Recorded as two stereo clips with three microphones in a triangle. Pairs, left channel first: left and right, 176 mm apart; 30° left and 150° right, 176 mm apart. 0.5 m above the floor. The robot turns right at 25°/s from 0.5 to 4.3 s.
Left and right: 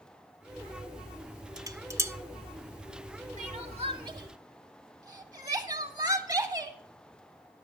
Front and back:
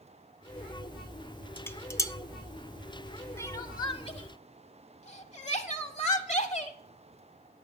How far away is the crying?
About 0.8 m.